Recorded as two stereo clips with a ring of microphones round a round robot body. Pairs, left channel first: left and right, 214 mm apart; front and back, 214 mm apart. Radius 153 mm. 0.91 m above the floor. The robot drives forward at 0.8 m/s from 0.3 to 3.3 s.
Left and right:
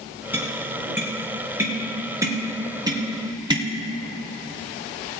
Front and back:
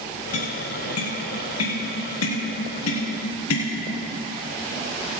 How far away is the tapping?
About 4 m.